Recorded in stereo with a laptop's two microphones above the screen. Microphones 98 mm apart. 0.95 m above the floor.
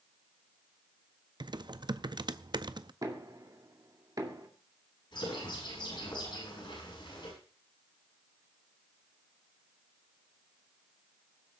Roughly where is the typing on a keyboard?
Right.